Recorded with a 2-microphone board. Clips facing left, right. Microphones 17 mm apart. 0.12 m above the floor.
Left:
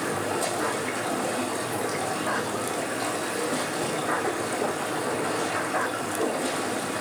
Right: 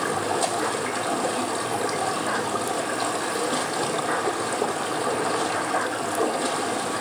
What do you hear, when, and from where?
0.0 s running water: 35° right (ahead or behind), 1.1 m